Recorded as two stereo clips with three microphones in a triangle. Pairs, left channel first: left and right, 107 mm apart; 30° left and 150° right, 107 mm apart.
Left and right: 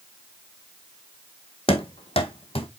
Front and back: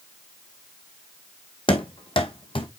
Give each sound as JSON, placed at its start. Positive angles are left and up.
{"t": 1.7, "sound": "running footsteps", "azimuth_deg": 65, "distance_m": 1.2}